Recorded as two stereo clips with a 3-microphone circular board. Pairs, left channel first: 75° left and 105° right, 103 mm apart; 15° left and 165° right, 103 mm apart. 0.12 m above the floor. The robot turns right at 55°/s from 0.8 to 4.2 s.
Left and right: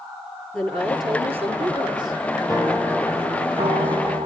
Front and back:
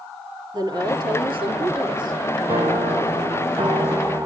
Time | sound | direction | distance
0.5 | a woman speaking | 155° left | 2.5 m
2.5 | a piano | 165° left | 1.5 m